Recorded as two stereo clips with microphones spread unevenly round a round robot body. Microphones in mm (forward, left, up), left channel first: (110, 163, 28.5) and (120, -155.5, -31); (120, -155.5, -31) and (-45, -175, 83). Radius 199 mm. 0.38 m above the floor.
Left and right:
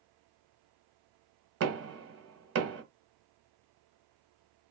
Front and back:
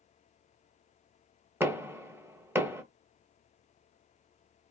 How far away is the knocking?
About 0.9 m.